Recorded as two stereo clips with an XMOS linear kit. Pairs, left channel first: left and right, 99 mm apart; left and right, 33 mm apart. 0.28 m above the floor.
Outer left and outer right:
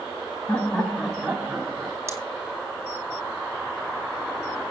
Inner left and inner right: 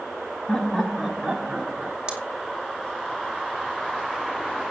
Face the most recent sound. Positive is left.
turn(degrees=-30)  # may be behind; listen again after turning